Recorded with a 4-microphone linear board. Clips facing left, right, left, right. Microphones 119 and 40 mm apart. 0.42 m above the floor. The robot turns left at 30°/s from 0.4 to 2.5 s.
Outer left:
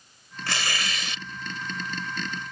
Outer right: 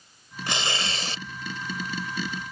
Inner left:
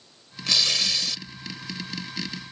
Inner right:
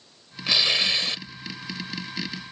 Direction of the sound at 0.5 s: 20° right (ahead or behind).